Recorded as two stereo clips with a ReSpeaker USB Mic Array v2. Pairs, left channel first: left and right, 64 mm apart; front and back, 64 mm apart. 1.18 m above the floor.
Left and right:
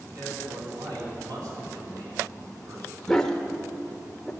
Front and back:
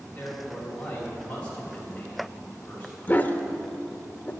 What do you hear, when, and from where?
0.1 s a man speaking: 70° right, 6.5 m
3.1 s a dog barking: 15° left, 0.9 m